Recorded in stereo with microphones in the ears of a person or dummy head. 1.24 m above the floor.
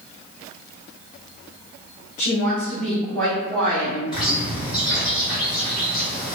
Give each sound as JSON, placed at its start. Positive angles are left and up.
{"t": 2.2, "sound": "a woman speaking", "side_deg": 25, "distance_m": 1.3}
{"t": 4.1, "sound": "a bird", "side_deg": 5, "distance_m": 1.5}